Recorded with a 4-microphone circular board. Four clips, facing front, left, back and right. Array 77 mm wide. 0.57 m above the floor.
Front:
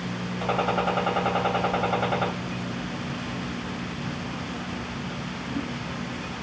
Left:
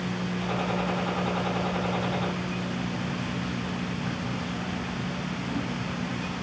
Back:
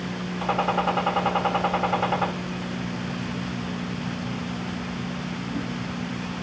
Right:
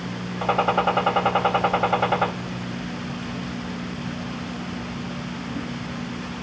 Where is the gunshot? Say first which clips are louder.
Right 11 dB, back 1 dB; 90° right, 2.5 m.